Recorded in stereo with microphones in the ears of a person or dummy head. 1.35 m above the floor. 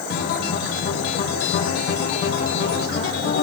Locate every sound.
0.1 s a guitar: 50° left (ahead or behind), 2 m